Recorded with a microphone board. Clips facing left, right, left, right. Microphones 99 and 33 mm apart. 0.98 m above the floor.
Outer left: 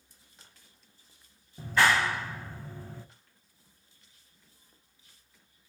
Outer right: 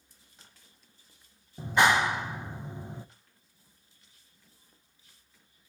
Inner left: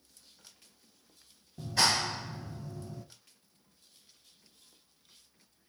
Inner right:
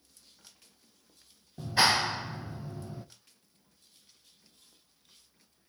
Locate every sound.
1.6 s a clap: 20° right (ahead or behind), 0.6 m